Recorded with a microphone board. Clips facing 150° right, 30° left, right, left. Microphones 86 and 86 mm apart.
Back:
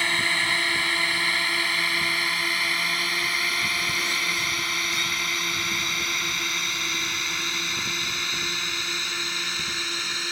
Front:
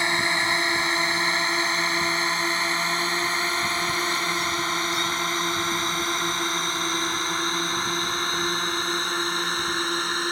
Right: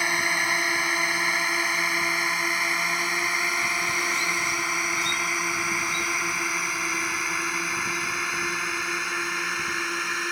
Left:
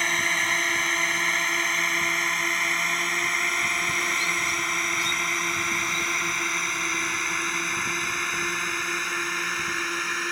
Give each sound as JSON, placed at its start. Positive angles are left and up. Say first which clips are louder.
{"t": 0.0, "sound": "a drone", "louder": "front 2 dB, right 1 dB", "azimuth_deg": -15}